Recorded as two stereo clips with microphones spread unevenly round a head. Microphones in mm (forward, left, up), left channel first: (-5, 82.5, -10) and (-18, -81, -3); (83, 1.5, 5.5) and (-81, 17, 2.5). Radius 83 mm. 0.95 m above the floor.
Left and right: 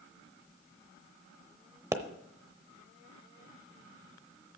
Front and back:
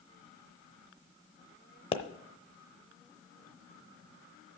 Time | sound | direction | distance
1.9 | a pop | 40° right | 0.8 m